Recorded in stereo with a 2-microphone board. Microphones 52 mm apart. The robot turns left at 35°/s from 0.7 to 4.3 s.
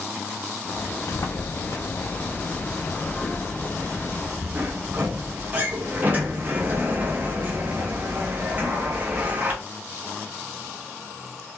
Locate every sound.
1.1 s a sliding door: 80° left, 0.6 m; by 9.5 s 35° right, 0.6 m